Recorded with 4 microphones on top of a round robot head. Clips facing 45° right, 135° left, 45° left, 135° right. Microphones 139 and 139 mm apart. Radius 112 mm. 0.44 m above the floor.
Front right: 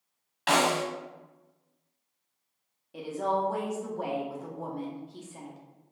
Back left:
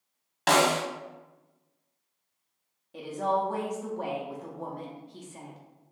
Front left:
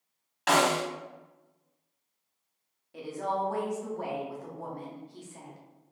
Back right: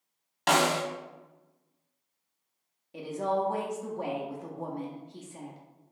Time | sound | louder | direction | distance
0.5 | a snare drum | back left 2 dB, front left 1 dB | 170° left | 1.1 m
2.9 | a woman speaking | back left 1 dB, back right 3 dB | 120° right | 0.8 m